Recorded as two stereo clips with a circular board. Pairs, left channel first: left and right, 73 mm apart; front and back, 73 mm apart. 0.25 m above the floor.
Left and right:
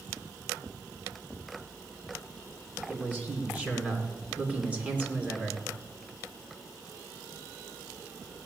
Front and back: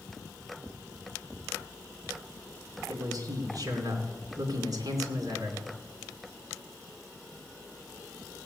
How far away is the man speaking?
About 2.5 m.